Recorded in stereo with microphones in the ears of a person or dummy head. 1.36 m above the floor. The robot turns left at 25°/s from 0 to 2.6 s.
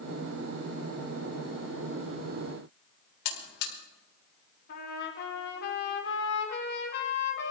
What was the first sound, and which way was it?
A buzzer, 55° left (ahead or behind).